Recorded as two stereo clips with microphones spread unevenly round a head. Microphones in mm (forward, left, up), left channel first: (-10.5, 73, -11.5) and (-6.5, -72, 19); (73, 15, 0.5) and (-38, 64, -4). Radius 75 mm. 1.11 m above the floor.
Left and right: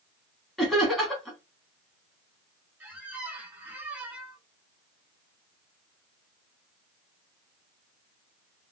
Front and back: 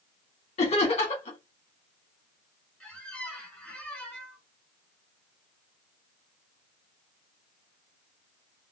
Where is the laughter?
10° left, 1.0 m.